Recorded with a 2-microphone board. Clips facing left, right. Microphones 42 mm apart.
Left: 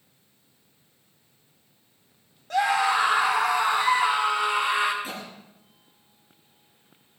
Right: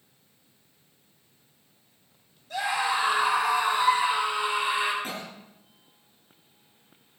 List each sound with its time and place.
2.5 s a scream: 60° left (ahead or behind), 5 m
5.0 s a cough: 50° right (ahead or behind), 9.5 m